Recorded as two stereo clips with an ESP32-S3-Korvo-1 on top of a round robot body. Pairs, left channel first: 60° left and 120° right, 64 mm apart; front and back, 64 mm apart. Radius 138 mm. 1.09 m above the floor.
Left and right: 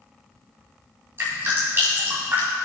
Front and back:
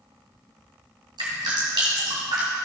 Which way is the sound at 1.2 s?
Straight behind.